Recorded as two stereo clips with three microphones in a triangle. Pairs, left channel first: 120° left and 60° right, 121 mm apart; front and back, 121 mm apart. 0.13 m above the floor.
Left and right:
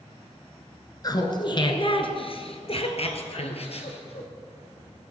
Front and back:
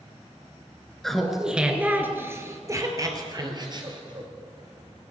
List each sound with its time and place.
1.0 s laughter: 85° left, 1.5 m; by 4.3 s 140° left, 2.5 m